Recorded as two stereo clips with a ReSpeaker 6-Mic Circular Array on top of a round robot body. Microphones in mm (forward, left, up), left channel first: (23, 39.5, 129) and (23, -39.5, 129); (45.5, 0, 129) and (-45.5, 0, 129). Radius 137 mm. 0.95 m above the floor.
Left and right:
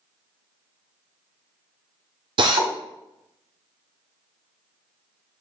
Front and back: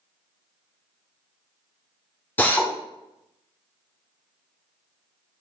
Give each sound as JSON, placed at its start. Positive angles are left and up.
{"t": 2.4, "sound": "a drill", "azimuth_deg": -70, "distance_m": 1.1}